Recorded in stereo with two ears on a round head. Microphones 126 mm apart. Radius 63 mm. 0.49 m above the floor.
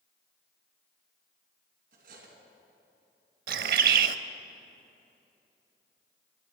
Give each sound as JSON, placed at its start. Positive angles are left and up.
{"t": 1.9, "sound": "cutlery clinking", "side_deg": -65, "distance_m": 3.0}
{"t": 3.5, "sound": "a bird", "side_deg": -70, "distance_m": 0.6}